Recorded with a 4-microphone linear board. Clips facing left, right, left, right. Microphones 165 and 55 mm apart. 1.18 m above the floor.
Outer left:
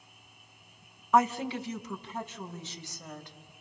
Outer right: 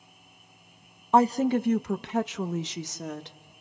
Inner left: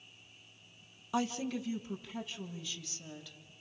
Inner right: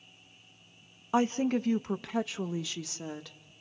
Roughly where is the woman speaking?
Right.